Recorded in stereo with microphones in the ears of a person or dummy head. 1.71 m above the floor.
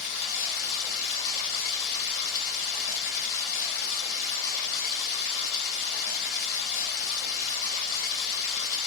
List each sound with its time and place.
0.0 s running water: 45° left (ahead or behind), 1.3 m